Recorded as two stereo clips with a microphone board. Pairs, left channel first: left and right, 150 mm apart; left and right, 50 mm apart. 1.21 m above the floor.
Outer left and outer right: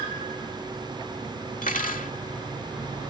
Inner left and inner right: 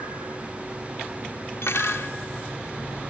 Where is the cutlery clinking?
70° left (ahead or behind).